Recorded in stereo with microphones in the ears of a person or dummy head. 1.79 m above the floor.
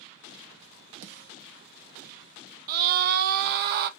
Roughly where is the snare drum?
Right.